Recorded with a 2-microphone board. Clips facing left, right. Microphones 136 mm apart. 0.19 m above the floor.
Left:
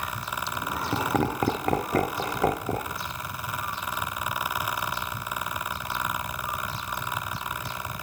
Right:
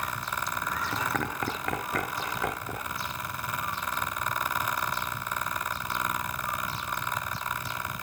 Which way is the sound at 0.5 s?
30° left (ahead or behind).